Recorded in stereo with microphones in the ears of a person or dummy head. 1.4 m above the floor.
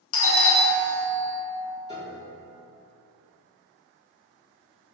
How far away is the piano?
About 0.6 m.